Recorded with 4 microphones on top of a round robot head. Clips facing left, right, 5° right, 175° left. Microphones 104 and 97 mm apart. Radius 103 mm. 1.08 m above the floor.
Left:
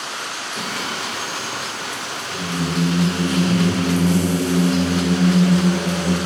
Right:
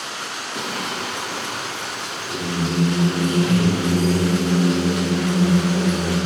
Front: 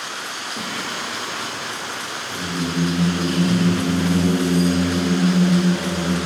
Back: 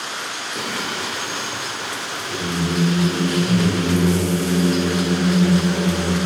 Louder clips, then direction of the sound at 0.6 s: Right 1 dB, back 2 dB; 145° right.